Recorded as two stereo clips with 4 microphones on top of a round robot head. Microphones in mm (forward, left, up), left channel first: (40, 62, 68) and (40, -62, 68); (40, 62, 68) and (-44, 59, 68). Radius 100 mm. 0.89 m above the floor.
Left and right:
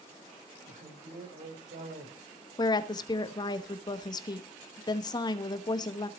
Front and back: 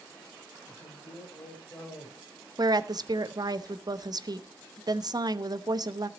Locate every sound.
0.7 s a man speaking: 70° right, 4.5 m
2.6 s a woman speaking: 145° left, 1.0 m